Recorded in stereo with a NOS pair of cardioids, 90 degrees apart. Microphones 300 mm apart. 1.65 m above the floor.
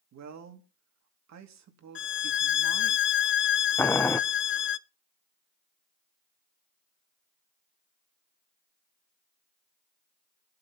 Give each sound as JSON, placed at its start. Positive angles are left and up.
{"t": 0.1, "sound": "a man speaking", "azimuth_deg": -65, "distance_m": 2.5}
{"t": 1.9, "sound": "a violin", "azimuth_deg": 40, "distance_m": 0.5}
{"t": 3.8, "sound": "boiling", "azimuth_deg": 10, "distance_m": 0.5}